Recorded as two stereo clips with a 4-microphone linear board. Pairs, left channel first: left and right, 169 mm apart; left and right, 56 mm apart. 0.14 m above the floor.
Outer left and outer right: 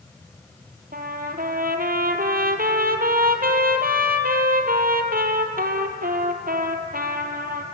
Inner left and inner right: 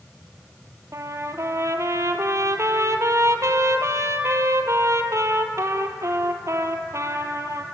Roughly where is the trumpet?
Right.